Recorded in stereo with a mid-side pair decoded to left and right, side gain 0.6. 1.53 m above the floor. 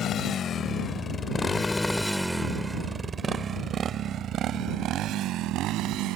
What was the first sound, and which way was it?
A motorcycle, 50° left.